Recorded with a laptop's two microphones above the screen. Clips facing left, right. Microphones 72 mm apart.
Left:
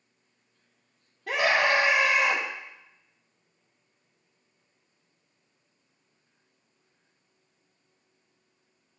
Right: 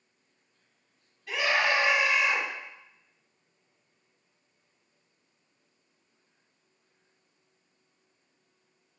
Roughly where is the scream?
Left.